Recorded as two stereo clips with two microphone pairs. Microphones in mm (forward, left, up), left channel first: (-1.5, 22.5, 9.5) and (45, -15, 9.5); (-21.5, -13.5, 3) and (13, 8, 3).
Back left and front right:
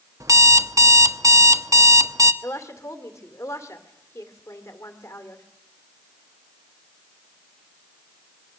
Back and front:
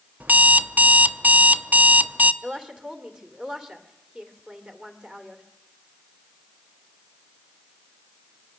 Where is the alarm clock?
10° right, 0.7 m.